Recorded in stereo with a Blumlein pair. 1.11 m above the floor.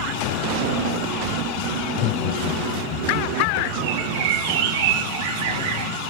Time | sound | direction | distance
1.8 | laughter | 25° left | 8 m
3.8 | a bird | 55° right | 2 m